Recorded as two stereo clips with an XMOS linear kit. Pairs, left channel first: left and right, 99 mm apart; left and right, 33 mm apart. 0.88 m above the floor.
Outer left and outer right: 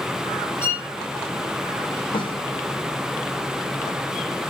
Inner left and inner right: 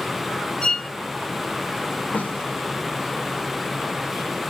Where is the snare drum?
65° left (ahead or behind), 3 m.